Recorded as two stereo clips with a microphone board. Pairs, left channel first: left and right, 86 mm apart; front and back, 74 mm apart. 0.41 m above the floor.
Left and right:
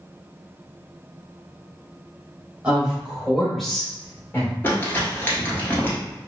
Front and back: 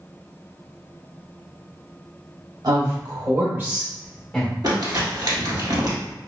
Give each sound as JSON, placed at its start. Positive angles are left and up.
{"t": 2.6, "sound": "a woman speaking", "azimuth_deg": -165, "distance_m": 1.4}
{"t": 4.6, "sound": "crumpling", "azimuth_deg": 155, "distance_m": 1.4}